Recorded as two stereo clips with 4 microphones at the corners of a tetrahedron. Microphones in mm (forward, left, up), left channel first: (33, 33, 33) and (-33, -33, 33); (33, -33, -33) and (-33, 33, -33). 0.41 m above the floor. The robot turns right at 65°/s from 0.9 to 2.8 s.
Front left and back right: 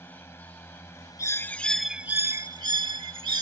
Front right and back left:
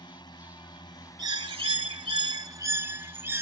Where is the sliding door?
No sliding door in this recording.